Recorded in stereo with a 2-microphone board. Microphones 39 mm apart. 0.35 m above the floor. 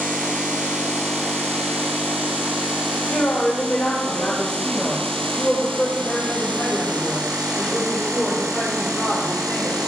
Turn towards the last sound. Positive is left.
turn(degrees=15)  # may be behind; listen again after turning